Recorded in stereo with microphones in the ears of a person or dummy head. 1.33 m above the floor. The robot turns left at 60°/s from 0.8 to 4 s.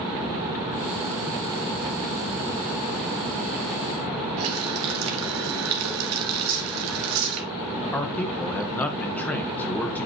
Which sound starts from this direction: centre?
A man speaking, at 7.9 s.